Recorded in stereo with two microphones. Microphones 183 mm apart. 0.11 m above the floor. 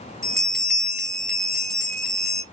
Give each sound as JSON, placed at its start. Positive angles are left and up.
{"t": 0.2, "sound": "a bell", "side_deg": 0, "distance_m": 2.5}